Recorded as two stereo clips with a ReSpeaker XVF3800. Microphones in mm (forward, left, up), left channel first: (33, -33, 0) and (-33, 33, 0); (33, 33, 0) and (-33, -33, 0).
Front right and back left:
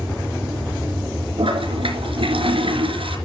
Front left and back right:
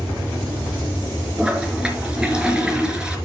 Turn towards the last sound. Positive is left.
turn(degrees=145)